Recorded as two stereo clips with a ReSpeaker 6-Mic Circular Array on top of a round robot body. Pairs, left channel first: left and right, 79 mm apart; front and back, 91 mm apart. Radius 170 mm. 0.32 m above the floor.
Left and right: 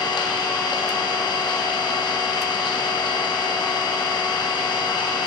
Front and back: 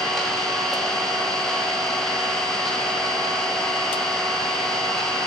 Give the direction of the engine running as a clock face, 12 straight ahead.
9 o'clock.